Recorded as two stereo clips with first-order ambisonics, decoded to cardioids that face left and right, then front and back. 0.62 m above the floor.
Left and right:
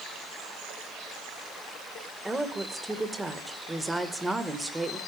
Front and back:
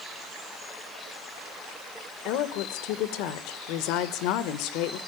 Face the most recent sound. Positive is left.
turn(degrees=-5)